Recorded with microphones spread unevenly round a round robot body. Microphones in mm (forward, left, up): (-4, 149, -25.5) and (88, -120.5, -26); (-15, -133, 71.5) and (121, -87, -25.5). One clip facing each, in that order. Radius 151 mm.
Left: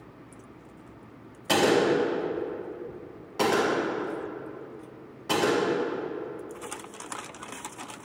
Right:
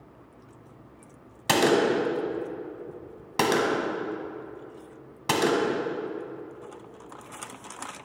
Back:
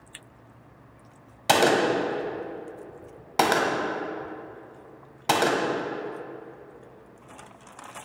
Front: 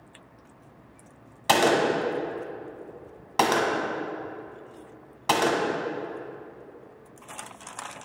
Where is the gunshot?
80° right, 1.3 m.